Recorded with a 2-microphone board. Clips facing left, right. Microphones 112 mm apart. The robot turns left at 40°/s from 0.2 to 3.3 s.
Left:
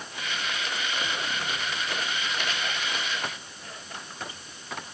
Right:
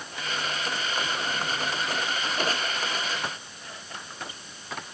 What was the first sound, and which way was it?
Only background noise.